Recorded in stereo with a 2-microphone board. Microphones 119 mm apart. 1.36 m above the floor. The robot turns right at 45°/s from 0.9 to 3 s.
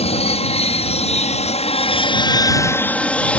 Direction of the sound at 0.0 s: 75° left.